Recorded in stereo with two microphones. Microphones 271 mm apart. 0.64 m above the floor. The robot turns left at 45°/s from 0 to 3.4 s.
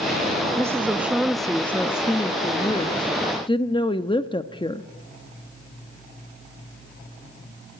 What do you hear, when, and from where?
0.6 s a woman speaking: 10° right (ahead or behind), 0.7 m; by 4.8 s 20° left (ahead or behind), 0.7 m